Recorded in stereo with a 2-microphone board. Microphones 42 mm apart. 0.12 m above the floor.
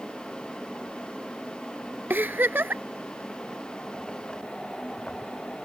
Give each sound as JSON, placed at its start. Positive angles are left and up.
{"t": 2.1, "sound": "a giggle", "side_deg": -50}